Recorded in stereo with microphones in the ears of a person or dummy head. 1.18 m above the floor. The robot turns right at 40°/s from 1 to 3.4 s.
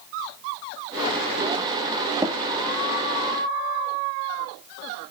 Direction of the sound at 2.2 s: 15° right (ahead or behind).